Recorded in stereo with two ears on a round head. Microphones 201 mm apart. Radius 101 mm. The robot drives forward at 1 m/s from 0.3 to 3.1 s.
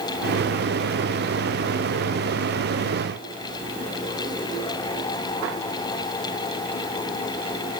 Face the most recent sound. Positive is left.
No sound to turn to.